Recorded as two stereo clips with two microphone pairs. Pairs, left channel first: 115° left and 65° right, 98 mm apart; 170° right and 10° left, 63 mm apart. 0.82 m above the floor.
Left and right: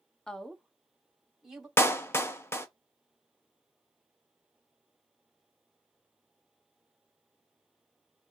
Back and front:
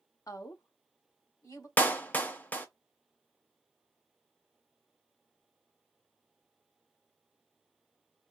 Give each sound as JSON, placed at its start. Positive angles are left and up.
{"t": 0.3, "sound": "a woman speaking", "azimuth_deg": -165, "distance_m": 0.7}
{"t": 1.8, "sound": "a clap", "azimuth_deg": 155, "distance_m": 0.7}